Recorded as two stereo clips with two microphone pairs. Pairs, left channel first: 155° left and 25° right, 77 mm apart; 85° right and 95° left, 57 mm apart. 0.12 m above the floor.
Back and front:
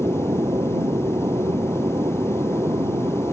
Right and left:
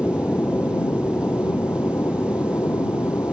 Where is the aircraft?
45° right; by 3.4 s 60° right.